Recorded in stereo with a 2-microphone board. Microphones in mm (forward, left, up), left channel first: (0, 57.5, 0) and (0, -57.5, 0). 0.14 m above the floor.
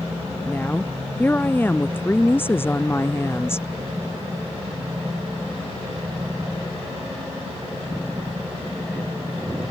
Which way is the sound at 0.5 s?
15° left (ahead or behind).